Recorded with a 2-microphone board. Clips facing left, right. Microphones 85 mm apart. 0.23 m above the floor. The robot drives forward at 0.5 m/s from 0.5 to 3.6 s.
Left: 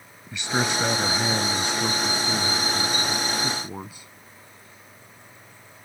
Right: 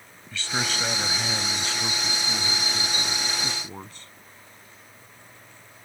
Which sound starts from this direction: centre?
A man speaking, at 0.3 s.